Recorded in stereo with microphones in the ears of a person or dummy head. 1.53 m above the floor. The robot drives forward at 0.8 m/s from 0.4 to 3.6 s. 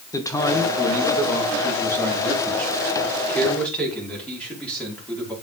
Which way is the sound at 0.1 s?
20° left (ahead or behind).